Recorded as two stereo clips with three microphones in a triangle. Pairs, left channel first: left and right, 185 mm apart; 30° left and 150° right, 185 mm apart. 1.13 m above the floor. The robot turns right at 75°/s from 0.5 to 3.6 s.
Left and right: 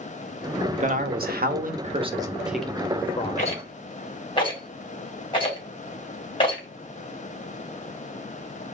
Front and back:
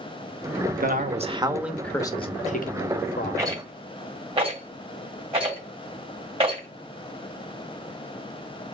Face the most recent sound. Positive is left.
turn(degrees=155)